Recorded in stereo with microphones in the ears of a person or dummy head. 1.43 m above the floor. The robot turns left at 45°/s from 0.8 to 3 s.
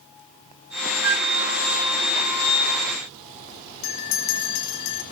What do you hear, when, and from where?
1.0 s a flute: 75° right (ahead or behind), 0.6 m; by 1.3 s 65° right (ahead or behind), 0.6 m
3.8 s a bell: 70° left (ahead or behind), 4.5 m